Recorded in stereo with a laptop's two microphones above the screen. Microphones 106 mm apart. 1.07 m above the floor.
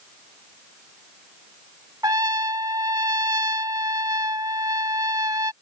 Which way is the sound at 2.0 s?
35° right (ahead or behind).